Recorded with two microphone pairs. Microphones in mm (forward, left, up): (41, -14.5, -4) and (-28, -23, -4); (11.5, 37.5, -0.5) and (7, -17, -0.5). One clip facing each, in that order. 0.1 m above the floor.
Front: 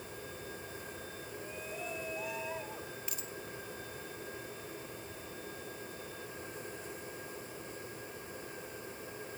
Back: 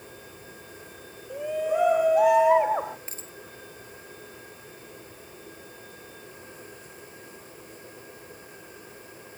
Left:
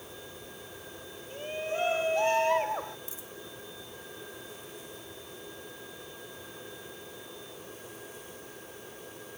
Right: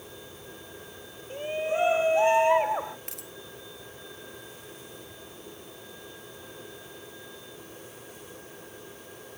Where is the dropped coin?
115° right.